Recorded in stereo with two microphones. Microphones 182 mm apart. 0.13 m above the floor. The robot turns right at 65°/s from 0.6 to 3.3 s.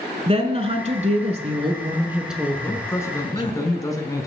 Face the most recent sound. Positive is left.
turn(degrees=20)  # may be behind; listen again after turning